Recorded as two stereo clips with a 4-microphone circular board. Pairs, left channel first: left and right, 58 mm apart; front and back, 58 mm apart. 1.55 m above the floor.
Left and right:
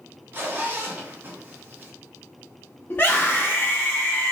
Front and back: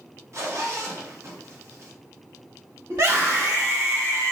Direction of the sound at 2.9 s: 140° left.